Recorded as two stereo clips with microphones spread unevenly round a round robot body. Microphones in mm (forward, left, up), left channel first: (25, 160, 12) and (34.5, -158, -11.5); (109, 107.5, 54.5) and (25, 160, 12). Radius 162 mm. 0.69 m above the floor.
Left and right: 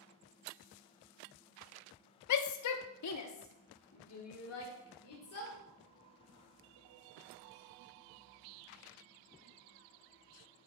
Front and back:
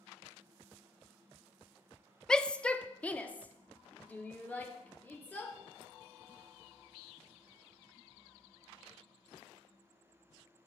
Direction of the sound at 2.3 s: 70° left.